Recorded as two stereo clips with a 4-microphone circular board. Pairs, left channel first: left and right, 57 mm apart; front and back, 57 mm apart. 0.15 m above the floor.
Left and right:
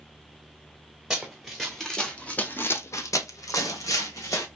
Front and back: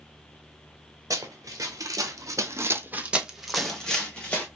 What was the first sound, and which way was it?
Running footsteps, 170° right.